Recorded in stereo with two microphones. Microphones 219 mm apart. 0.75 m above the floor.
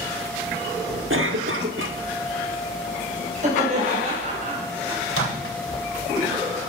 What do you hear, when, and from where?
1.1 s a cough: 65° right (ahead or behind), 1.4 m
3.4 s laughter: 35° right (ahead or behind), 4.5 m
5.1 s a microwave: 80° left, 2.5 m